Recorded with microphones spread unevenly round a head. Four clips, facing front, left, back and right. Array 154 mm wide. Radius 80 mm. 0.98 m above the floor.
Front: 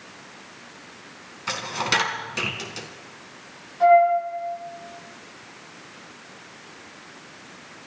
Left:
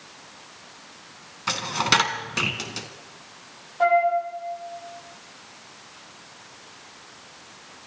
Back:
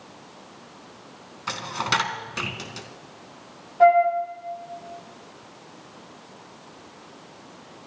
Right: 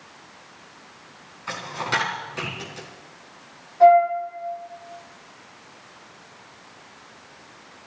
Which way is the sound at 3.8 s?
165° left.